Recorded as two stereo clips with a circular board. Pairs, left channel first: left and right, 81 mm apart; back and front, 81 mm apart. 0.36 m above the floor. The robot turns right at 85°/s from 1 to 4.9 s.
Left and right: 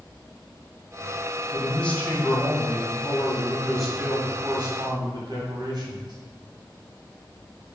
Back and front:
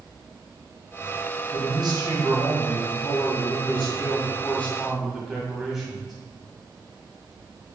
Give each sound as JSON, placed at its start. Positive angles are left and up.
{"t": 1.5, "sound": "a man speaking", "azimuth_deg": -15, "distance_m": 2.5}